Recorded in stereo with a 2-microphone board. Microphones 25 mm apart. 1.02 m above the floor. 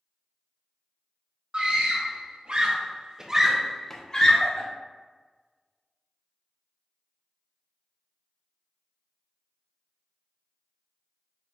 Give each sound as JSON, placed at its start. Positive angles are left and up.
{"t": 1.5, "sound": "a scream", "side_deg": -45, "distance_m": 1.6}